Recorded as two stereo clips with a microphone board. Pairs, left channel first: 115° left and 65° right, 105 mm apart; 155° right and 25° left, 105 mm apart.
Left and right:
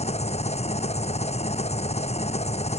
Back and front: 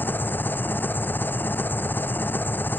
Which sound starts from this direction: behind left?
An engine running, at 0.0 s.